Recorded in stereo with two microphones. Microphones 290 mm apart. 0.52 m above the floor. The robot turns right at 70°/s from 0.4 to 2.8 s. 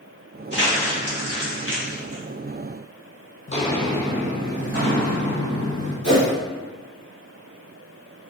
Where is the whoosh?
70° right (ahead or behind), 1.7 m.